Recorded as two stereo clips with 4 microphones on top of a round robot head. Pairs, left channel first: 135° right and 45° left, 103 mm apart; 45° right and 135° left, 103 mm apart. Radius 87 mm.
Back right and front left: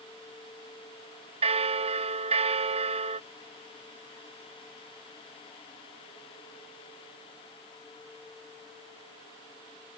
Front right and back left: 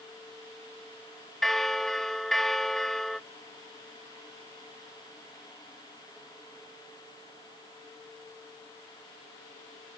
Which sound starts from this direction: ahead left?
A bell, at 1.4 s.